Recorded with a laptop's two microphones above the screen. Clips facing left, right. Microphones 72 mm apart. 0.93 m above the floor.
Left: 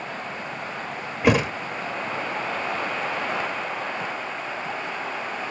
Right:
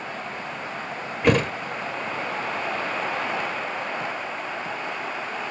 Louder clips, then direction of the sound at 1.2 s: Even; 5° left (ahead or behind).